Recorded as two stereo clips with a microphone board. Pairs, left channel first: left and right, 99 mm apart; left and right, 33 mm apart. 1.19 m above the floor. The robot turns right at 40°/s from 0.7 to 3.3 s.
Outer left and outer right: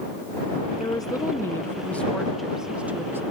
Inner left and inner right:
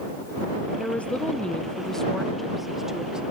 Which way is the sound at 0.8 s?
115° left.